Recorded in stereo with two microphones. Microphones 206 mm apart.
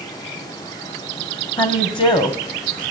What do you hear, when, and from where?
1.6 s a woman speaking: 25° left (ahead or behind), 1.7 m